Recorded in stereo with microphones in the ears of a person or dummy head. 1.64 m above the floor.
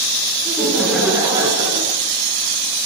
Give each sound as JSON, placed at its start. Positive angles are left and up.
{"t": 0.5, "sound": "laughter", "side_deg": 10, "distance_m": 1.2}